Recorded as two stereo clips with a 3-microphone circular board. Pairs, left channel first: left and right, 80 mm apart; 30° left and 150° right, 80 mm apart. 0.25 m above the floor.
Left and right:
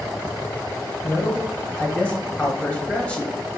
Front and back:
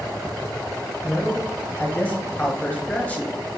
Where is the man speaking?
50° left, 1.1 m.